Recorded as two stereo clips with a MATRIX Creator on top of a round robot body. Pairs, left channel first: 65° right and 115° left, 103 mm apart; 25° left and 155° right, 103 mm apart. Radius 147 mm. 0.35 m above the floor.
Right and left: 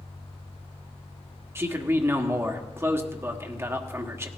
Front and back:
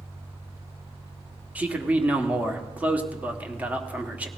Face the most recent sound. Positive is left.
turn(degrees=140)